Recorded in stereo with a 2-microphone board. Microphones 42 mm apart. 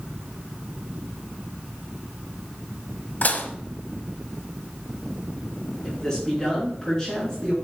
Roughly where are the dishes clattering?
Left.